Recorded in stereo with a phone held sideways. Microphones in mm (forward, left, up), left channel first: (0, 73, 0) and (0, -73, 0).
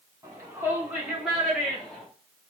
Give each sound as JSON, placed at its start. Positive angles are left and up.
{"t": 0.2, "sound": "a shout", "side_deg": -20, "distance_m": 4.5}